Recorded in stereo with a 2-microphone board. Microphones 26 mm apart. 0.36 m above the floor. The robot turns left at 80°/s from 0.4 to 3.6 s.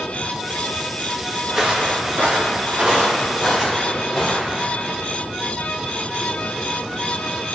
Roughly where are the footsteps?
Centre.